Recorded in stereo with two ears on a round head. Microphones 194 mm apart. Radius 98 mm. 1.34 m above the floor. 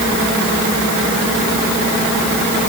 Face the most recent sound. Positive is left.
No sound to turn to.